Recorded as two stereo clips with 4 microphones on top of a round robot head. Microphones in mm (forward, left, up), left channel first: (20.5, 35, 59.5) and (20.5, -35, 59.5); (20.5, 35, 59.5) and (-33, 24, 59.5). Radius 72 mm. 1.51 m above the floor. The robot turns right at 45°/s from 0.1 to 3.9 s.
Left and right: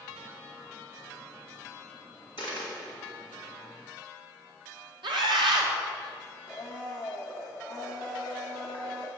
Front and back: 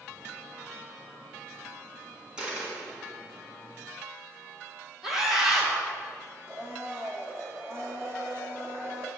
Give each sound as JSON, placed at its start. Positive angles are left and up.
{"t": 2.4, "sound": "a dropped coin", "azimuth_deg": 120, "distance_m": 1.7}
{"t": 5.0, "sound": "a scream", "azimuth_deg": -80, "distance_m": 1.8}
{"t": 6.5, "sound": "a blender", "azimuth_deg": 175, "distance_m": 1.1}